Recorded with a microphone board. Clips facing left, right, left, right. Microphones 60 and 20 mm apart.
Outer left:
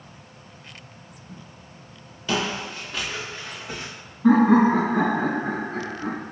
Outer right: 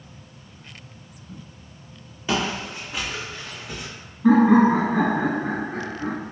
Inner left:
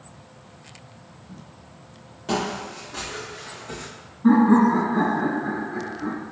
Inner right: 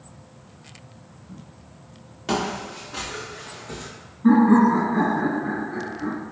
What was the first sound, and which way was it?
Footsteps, 25° right (ahead or behind).